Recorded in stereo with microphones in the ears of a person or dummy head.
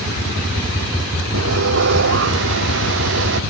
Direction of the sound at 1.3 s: 65° right (ahead or behind).